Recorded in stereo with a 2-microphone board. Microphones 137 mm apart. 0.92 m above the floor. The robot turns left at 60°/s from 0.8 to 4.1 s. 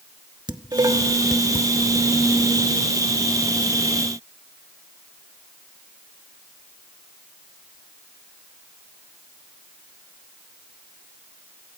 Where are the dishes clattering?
30° right (ahead or behind), 1.1 m; by 1.7 s 20° left (ahead or behind), 1.1 m.